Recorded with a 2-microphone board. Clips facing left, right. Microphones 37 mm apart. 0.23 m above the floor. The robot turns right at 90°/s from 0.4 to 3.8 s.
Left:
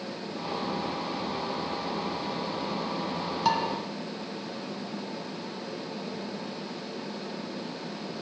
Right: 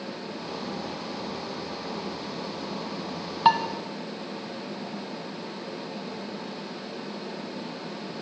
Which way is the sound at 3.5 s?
35° right (ahead or behind).